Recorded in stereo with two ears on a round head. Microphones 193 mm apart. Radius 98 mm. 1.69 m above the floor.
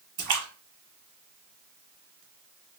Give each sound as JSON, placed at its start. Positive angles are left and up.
{"t": 0.2, "sound": "a splash", "side_deg": -25, "distance_m": 1.3}